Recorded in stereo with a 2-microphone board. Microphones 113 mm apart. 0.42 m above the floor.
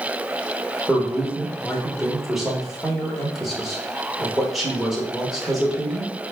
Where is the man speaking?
Centre (ahead or behind), 1.0 m.